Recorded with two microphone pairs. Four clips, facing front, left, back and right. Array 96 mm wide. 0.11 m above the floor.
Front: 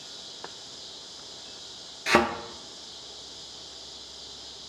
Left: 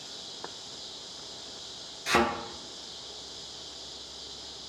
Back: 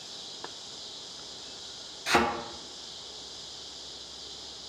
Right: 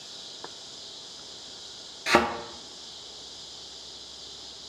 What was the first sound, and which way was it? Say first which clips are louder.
A thud: right 4 dB, front 3 dB; 50° right.